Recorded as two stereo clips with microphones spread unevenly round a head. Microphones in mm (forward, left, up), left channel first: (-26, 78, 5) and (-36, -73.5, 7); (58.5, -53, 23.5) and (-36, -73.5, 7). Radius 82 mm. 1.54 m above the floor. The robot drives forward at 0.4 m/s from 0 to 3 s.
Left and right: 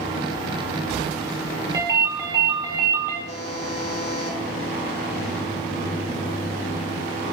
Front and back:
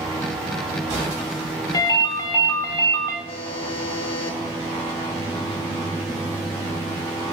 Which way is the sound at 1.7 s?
25° right.